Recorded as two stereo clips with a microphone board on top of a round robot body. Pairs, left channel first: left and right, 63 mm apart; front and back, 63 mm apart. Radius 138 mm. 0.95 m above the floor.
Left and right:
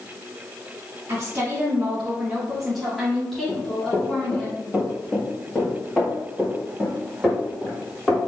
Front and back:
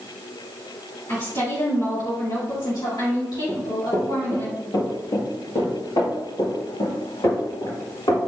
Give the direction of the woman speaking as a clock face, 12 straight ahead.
1 o'clock.